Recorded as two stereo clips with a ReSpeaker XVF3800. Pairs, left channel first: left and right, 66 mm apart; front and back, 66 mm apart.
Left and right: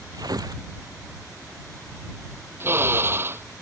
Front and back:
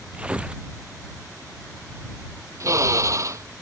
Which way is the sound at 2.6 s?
140° right.